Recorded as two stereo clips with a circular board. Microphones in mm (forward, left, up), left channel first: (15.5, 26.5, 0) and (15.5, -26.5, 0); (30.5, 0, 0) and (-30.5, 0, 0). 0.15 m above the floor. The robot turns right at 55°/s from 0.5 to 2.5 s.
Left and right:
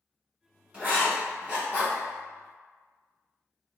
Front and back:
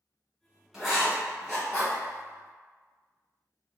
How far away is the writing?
About 1.3 m.